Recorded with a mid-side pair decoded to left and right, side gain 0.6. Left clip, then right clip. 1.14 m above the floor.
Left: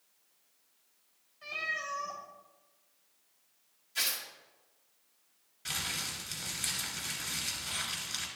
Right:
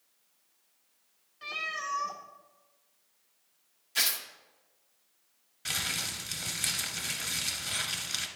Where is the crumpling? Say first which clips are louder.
Right 3 dB; 30° right, 1.8 m.